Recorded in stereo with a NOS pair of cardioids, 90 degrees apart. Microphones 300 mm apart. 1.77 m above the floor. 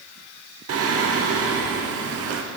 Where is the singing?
55° right, 0.9 m.